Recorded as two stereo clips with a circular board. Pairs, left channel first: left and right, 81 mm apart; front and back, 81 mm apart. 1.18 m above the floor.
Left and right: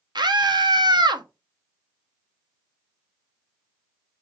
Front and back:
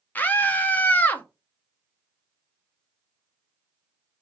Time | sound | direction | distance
0.1 | a scream | 65° right | 0.8 m